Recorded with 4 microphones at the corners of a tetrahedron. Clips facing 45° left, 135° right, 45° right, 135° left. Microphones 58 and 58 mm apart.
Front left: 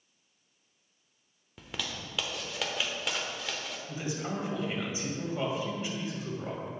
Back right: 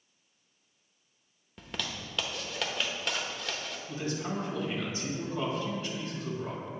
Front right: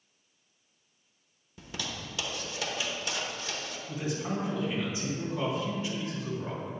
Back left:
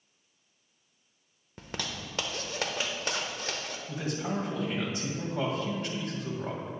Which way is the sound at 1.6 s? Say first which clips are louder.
Even, back left 1 dB; 130° left.